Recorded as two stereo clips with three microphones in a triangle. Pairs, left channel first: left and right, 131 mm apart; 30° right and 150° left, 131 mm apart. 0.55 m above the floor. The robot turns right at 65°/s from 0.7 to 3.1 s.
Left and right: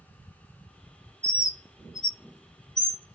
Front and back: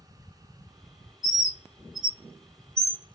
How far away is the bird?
About 0.6 m.